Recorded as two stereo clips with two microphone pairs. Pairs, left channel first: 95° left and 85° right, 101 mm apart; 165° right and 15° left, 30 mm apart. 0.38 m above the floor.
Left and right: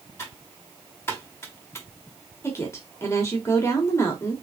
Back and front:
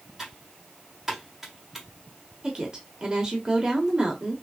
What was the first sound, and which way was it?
Typing on a keyboard, 80° left.